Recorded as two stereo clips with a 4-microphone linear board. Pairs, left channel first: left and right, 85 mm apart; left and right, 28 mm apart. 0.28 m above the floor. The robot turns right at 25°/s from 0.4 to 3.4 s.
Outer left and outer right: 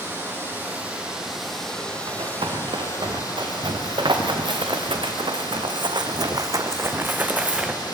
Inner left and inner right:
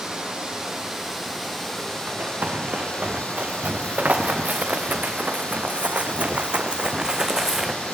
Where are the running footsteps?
85° right, 2.5 m; by 7.7 s 10° right (ahead or behind), 1.2 m.